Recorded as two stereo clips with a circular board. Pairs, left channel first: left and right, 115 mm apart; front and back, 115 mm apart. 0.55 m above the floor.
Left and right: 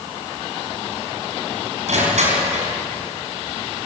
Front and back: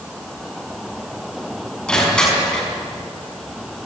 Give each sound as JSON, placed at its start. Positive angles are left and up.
{"t": 1.9, "sound": "crushing", "azimuth_deg": -80, "distance_m": 6.0}